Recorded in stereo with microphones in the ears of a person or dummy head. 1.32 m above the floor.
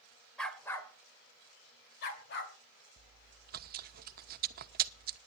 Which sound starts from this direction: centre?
A dog barking, at 0.4 s.